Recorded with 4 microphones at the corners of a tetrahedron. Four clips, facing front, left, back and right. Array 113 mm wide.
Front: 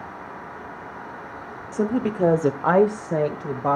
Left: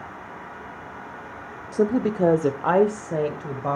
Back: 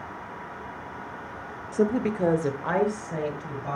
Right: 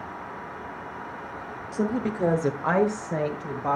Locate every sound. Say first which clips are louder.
1.7 s a woman speaking: left 5 dB, front 1 dB; 105° left, 0.8 m; by 3.8 s 15° left, 1.6 m